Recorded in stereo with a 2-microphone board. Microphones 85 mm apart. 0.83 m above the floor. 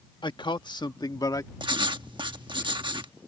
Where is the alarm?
No alarm in this recording.